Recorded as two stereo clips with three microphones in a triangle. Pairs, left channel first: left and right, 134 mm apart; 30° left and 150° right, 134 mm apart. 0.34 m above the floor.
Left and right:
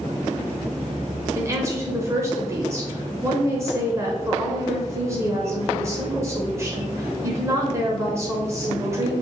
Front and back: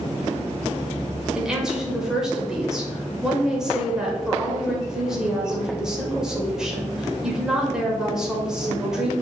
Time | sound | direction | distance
1.4 | a woman speaking | 75° right | 1.0 m